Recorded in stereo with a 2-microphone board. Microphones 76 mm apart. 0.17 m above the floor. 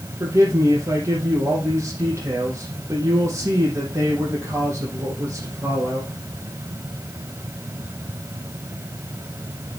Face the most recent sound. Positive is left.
turn(degrees=-35)  # may be behind; listen again after turning